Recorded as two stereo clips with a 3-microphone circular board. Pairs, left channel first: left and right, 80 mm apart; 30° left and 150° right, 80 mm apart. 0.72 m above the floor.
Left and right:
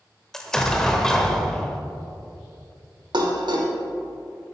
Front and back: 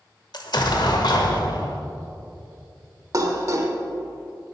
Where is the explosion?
5° left, 0.8 m.